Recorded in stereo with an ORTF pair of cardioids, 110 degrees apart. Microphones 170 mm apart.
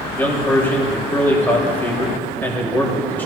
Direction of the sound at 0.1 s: 10° left.